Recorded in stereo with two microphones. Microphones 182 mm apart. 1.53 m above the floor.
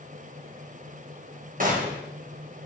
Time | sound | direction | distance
1.6 | a gunshot | 50° right (ahead or behind) | 2.5 m